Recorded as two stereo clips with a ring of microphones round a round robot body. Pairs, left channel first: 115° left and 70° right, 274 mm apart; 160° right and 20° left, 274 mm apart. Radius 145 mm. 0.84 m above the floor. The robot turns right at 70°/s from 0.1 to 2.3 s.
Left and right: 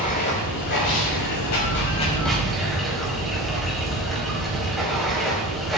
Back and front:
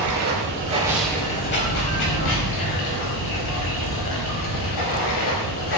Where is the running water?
50° left, 5 m; by 5.8 s 160° right, 5 m.